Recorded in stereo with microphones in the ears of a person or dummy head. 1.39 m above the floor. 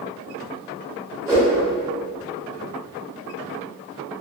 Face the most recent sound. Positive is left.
turn(degrees=-10)  # may be behind; listen again after turning